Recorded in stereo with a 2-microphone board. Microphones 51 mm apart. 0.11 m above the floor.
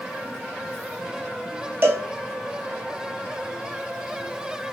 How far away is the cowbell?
About 0.8 m.